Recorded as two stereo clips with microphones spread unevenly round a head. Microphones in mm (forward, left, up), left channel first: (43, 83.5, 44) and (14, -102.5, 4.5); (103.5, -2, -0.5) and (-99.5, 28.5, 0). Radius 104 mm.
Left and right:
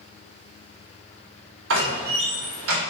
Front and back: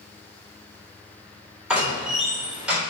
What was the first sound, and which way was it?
A door slam, 100° right.